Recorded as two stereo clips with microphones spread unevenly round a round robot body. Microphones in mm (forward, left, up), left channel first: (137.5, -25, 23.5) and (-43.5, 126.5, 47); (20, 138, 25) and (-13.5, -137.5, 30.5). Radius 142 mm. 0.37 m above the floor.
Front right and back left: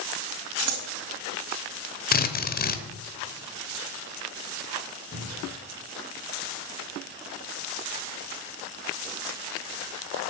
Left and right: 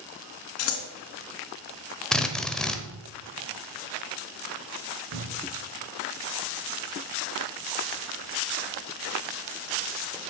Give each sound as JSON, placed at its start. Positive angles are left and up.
{"t": 0.6, "sound": "scissors", "azimuth_deg": 120, "distance_m": 2.0}
{"t": 2.1, "sound": "a drill", "azimuth_deg": -5, "distance_m": 1.1}
{"t": 5.1, "sound": "a cupboard door", "azimuth_deg": -85, "distance_m": 2.0}